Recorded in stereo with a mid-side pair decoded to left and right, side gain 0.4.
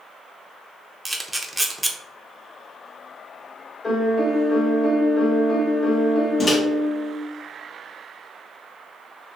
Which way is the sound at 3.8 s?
40° left.